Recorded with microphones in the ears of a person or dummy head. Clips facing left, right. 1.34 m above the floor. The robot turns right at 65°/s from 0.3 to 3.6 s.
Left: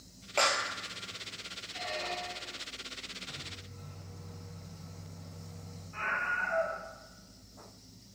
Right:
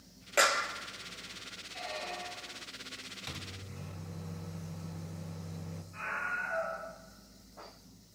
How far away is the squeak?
About 0.9 m.